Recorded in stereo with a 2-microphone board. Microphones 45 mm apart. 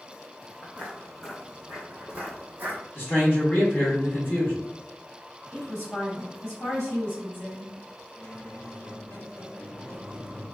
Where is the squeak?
65° left (ahead or behind), 1.0 m.